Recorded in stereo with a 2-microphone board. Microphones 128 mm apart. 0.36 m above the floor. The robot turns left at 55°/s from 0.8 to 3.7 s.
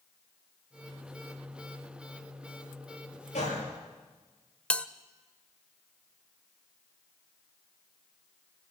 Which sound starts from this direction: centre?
A bell, at 4.7 s.